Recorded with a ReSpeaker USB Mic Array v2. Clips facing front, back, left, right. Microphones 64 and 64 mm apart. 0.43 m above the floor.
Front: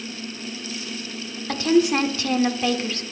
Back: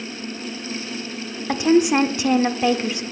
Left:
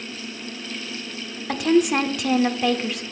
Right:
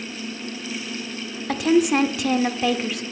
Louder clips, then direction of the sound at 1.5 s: Back 2 dB, even; straight behind.